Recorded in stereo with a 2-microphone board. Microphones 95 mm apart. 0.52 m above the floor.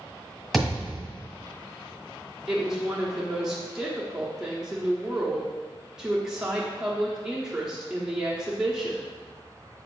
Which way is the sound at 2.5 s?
5° right (ahead or behind).